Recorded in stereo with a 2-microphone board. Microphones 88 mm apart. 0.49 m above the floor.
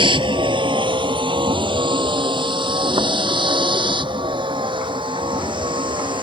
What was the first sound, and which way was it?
A vehicle, 65° right (ahead or behind).